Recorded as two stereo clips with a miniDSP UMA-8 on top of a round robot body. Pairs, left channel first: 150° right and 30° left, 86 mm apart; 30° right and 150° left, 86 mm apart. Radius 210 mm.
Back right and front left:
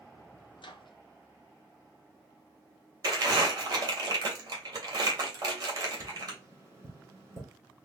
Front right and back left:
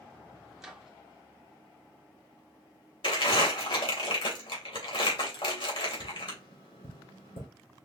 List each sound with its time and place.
0.6 s a microwave: 125° right, 1.2 m
3.0 s crumpling: 15° right, 2 m
6.0 s tapping: 30° right, 2.5 m